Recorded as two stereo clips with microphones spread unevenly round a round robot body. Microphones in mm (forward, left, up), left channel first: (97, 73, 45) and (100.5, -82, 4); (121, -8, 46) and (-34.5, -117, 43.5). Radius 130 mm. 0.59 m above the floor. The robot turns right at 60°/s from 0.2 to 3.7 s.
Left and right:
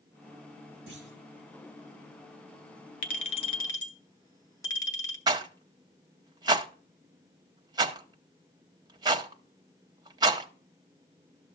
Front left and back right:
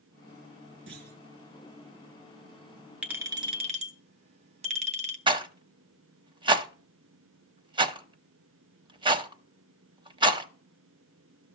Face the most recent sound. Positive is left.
turn(degrees=-95)